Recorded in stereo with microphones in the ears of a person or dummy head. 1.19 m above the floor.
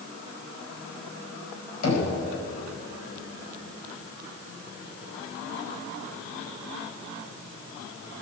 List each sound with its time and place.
1.8 s knocking: 80° left, 5.5 m